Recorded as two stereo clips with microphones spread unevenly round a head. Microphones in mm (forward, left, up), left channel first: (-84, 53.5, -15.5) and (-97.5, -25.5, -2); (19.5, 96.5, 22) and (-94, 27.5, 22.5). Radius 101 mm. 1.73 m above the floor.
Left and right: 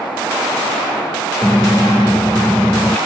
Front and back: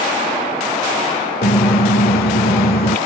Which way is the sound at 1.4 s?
5° right.